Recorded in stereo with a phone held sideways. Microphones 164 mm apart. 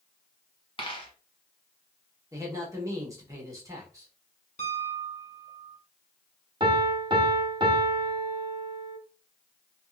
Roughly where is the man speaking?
Right.